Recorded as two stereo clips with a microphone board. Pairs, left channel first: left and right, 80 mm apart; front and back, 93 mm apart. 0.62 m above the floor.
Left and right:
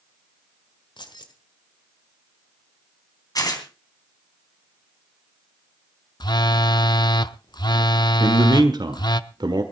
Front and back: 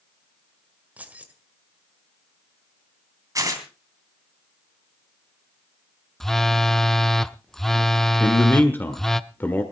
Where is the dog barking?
No dog barking in this recording.